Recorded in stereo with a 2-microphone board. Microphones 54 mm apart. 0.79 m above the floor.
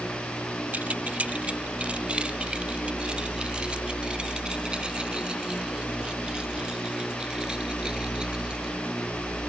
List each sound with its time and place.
0.7 s keys jangling: 35° right (ahead or behind); by 8.8 s 15° right (ahead or behind)